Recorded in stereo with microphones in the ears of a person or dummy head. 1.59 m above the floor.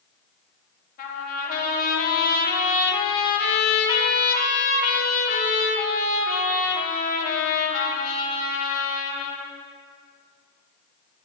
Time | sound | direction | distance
1.0 | a trumpet | 45° left (ahead or behind) | 1.0 m